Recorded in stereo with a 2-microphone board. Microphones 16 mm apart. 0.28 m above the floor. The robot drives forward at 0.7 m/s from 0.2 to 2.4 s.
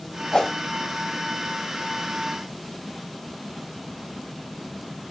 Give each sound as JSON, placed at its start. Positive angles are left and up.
{"t": 0.3, "sound": "a whoosh", "side_deg": 40, "distance_m": 0.5}